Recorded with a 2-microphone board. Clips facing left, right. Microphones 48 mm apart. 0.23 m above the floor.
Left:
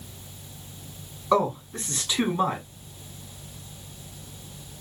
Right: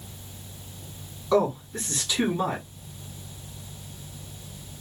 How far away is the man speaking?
About 2.0 m.